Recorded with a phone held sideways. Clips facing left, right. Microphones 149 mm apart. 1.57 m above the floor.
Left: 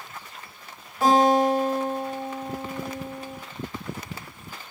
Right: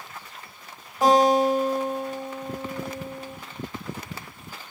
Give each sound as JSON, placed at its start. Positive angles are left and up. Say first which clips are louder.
{"t": 1.0, "sound": "a guitar", "louder": "even", "side_deg": -15, "distance_m": 1.3}